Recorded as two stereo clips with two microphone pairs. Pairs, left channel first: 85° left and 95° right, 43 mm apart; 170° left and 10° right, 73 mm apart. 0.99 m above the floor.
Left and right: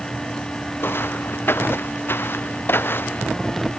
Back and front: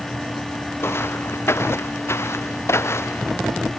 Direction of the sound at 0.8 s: 115° left.